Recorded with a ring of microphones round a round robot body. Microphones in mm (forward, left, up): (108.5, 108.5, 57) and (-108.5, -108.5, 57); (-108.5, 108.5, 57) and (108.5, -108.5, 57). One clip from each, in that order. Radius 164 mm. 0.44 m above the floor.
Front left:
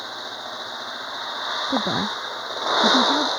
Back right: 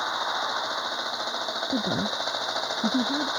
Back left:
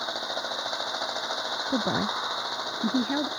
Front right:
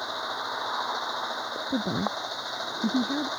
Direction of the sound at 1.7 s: 90° left.